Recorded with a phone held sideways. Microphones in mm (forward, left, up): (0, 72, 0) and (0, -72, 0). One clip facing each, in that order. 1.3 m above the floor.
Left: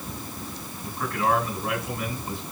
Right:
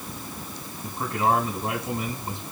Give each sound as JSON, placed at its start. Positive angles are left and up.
{"t": 0.8, "sound": "a man speaking", "side_deg": -30, "distance_m": 6.5}